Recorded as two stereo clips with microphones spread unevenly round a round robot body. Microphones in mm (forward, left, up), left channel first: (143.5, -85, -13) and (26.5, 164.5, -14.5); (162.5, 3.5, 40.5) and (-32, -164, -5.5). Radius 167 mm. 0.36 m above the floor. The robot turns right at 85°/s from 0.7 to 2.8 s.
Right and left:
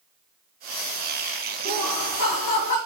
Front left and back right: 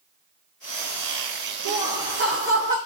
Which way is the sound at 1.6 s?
160° right.